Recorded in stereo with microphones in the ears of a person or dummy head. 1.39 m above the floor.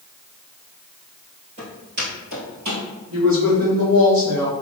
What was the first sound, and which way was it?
Footsteps, 50° right (ahead or behind).